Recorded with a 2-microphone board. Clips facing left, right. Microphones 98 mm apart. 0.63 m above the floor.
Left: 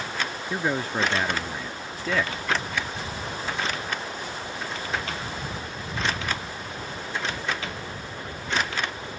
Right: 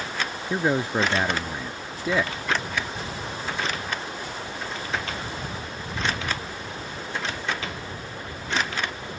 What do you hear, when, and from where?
0.5 s a man speaking: 15° right (ahead or behind)